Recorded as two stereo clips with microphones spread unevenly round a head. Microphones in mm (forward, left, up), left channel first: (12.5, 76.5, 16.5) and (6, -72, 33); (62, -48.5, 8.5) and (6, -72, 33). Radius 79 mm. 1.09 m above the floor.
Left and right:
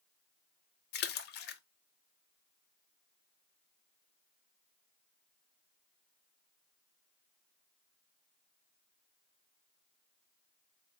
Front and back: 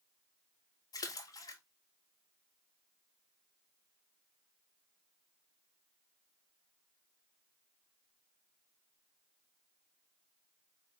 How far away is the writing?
I don't hear writing.